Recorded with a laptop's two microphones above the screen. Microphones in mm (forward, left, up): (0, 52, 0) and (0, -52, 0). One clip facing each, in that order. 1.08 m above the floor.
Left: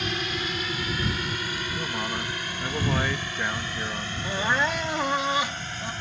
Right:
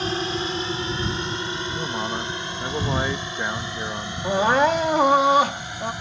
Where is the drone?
30° right (ahead or behind); by 6.0 s 15° right (ahead or behind).